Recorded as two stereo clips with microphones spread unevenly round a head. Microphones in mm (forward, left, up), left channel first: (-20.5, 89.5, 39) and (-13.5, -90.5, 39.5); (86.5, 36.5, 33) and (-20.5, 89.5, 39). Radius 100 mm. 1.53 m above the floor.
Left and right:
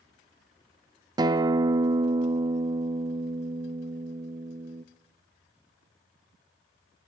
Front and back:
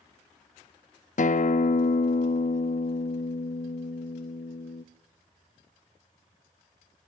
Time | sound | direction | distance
1.2 | a guitar | 15° right | 0.6 m